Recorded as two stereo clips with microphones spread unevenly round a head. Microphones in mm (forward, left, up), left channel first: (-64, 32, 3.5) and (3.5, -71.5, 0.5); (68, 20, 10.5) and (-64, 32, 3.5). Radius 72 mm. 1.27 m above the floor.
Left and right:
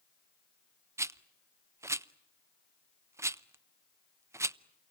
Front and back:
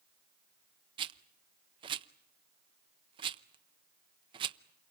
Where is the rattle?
125° right, 0.6 m.